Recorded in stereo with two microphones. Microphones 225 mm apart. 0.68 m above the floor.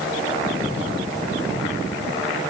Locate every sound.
Only background noise.